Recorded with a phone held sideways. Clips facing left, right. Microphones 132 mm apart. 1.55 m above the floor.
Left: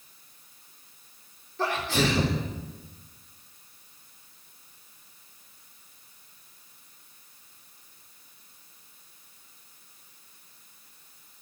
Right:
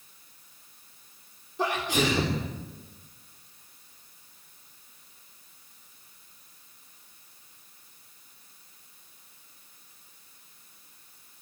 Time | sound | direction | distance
1.6 | a sneeze | 15° right (ahead or behind) | 4 m